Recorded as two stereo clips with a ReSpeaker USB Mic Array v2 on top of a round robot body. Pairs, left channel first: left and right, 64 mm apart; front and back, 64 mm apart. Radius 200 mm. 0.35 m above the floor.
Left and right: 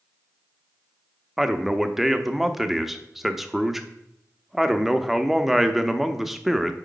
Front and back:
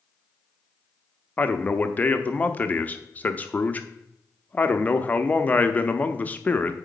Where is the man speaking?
10° right, 0.9 m.